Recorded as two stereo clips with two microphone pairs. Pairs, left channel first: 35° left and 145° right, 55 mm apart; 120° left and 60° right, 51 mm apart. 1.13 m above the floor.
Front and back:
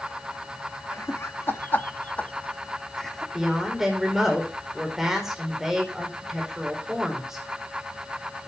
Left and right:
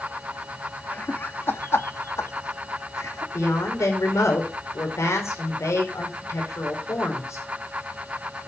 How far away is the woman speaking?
About 4.5 m.